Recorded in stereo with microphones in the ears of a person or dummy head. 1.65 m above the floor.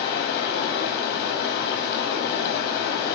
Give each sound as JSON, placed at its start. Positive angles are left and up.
{"t": 0.0, "sound": "running water", "side_deg": 55, "distance_m": 0.7}